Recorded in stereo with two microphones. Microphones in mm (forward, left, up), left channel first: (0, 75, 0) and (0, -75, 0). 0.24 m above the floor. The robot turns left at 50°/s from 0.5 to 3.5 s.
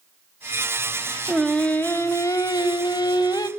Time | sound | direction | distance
1.3 | singing | centre (ahead or behind) | 0.9 m